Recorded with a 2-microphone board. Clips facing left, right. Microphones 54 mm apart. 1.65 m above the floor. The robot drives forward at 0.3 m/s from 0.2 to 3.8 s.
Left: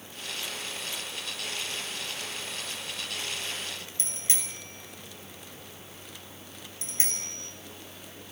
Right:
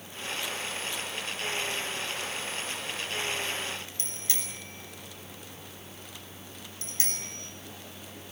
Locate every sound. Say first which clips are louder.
4.0 s a bicycle bell: even; 25° left (ahead or behind), 6.5 m